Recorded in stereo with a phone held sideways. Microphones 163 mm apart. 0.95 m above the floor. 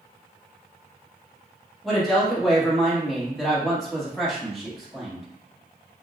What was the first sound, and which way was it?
A woman speaking, centre (ahead or behind).